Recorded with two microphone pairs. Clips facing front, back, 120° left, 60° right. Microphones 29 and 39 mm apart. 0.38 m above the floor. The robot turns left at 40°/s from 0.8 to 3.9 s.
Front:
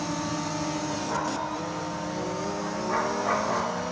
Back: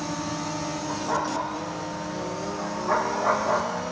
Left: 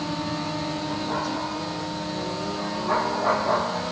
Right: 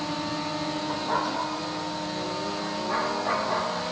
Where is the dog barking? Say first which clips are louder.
Back 2 dB, right 2 dB; 120° right, 4.5 m; by 3.8 s 120° left, 4.5 m.